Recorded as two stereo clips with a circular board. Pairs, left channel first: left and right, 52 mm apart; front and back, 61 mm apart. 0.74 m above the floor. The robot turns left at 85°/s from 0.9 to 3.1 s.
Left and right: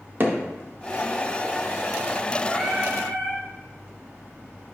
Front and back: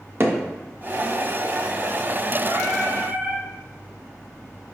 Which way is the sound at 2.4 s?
Straight behind.